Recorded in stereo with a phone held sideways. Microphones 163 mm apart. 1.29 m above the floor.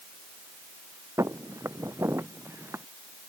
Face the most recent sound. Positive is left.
turn(degrees=-15)  # may be behind; listen again after turning